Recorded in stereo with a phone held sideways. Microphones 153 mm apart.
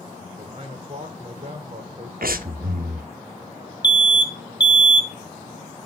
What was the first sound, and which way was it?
A man speaking, 35° right (ahead or behind).